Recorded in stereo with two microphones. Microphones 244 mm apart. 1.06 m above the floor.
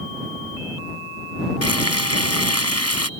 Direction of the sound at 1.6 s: 85° left.